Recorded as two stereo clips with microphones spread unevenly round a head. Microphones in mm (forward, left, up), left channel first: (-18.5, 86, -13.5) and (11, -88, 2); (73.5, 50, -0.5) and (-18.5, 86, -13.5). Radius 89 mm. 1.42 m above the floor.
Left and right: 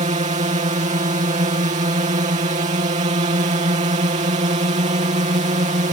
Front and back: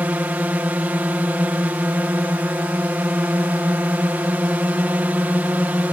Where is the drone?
125° right.